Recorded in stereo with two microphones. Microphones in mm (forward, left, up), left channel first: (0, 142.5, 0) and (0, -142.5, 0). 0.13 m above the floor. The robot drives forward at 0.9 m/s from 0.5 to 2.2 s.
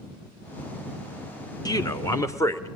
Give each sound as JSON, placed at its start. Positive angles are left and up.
{"t": 1.6, "sound": "a man speaking", "side_deg": 15, "distance_m": 1.4}